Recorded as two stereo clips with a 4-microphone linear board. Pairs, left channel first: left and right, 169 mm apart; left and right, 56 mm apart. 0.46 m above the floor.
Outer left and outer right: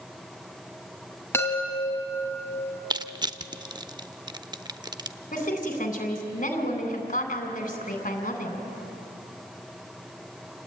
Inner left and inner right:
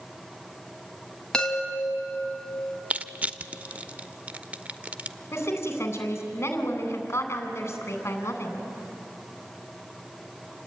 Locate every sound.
1.3 s a chime: 15° left (ahead or behind), 3 m
2.9 s crushing: 25° right (ahead or behind), 0.6 m
5.3 s a woman speaking: 50° left (ahead or behind), 3.5 m